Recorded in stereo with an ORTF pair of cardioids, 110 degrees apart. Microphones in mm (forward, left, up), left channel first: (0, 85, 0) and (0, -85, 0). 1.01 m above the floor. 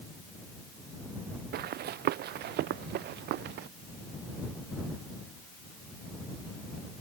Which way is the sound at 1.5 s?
70° right.